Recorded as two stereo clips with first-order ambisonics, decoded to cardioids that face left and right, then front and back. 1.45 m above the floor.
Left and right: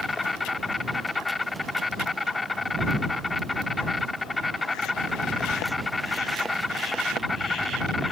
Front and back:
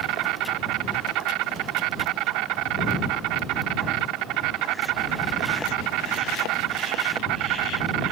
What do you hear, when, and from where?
0.0 s an insect: 165° left